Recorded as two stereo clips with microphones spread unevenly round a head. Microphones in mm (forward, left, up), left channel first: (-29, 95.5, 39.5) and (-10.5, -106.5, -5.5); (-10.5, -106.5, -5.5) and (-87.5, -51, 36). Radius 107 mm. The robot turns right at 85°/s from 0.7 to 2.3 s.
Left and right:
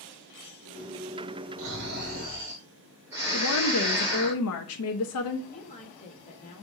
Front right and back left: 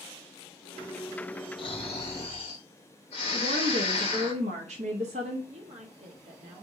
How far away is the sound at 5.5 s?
About 2 m.